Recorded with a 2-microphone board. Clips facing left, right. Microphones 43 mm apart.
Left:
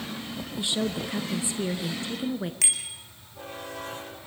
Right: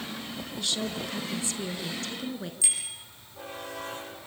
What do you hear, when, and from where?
0.6 s a woman speaking: 20° left (ahead or behind), 1.1 m
2.6 s a bicycle bell: 65° left (ahead or behind), 4.5 m